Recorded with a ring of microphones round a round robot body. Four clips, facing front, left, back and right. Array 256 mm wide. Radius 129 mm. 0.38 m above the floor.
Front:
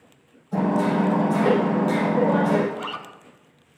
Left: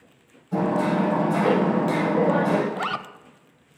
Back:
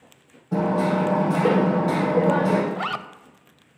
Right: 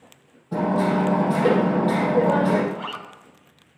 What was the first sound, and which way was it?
Hammering, 145° right.